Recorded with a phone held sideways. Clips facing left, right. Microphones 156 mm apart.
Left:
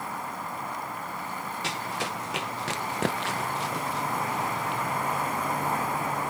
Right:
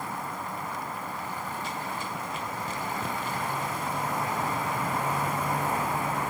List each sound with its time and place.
1.6 s running footsteps: 85° left; by 4.8 s 80° left